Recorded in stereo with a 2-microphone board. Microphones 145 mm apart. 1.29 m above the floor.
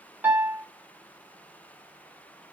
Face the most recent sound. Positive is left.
turn(degrees=-15)  # may be behind; listen again after turning